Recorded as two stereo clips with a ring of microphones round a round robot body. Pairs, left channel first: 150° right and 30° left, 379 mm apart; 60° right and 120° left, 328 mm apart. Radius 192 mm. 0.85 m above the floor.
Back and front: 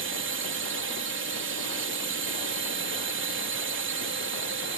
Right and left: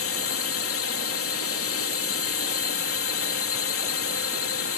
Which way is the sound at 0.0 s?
25° right.